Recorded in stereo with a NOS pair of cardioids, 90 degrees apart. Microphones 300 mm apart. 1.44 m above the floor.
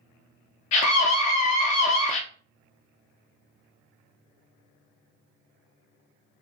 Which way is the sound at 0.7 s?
70° left.